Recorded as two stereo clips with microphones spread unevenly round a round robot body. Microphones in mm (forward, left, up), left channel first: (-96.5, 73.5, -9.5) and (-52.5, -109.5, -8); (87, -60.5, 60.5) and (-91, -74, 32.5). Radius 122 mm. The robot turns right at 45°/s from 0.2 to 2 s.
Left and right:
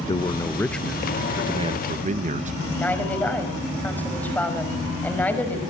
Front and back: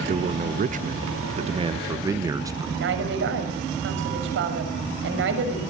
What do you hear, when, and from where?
0.1 s a man speaking: 165° left, 0.7 m; by 2.7 s 115° right, 0.7 m
2.8 s a woman speaking: 175° right, 6 m